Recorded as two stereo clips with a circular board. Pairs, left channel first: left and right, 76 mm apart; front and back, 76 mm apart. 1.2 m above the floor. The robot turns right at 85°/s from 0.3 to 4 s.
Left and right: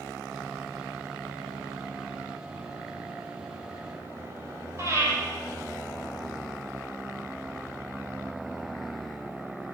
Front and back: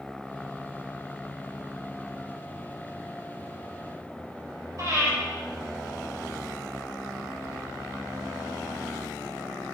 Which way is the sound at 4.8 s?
140° right.